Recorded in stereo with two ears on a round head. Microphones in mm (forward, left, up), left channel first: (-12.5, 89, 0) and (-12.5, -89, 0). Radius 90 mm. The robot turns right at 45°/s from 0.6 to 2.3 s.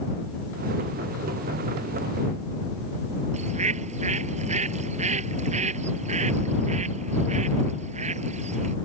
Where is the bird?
35° right (ahead or behind).